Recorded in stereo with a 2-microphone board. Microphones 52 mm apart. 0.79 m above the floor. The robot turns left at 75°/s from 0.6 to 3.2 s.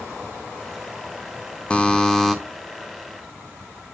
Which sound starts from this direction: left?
A buzzer, at 1.7 s.